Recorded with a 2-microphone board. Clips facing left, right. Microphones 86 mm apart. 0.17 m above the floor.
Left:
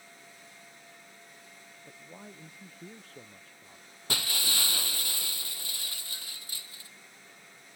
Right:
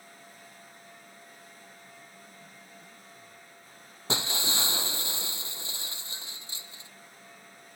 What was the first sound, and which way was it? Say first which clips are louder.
A man speaking: left 3 dB; 75° left (ahead or behind).